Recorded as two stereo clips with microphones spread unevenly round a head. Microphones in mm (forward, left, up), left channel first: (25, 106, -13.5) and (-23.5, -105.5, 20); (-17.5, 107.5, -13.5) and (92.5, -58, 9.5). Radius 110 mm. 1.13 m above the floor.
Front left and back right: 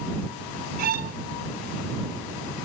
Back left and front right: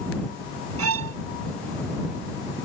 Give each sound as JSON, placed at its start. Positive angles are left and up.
{"t": 0.8, "sound": "a violin", "azimuth_deg": -50}